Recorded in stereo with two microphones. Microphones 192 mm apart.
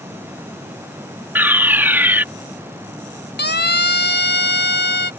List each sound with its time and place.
1.4 s a fire alarm: 10° right (ahead or behind)
3.4 s a siren: 60° left (ahead or behind)